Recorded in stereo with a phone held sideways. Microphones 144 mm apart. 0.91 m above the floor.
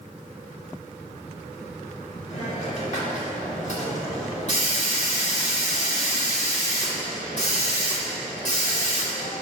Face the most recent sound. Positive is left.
turn(degrees=55)  # may be behind; listen again after turning